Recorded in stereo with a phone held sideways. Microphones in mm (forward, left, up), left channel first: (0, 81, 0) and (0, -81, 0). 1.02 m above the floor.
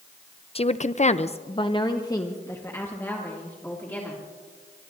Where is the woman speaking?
35° left (ahead or behind), 0.5 m; by 4.2 s 10° left (ahead or behind), 2.5 m.